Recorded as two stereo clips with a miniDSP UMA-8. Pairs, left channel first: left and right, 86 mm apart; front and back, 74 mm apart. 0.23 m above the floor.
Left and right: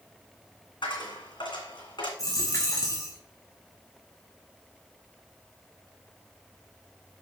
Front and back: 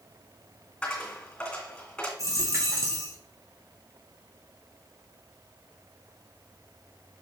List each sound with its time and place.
0.8 s a dropped coin: 75° left, 2 m
2.2 s a dropped coin: 135° left, 1.9 m